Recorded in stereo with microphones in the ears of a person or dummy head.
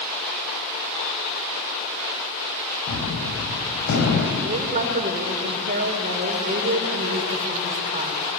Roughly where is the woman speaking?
Right.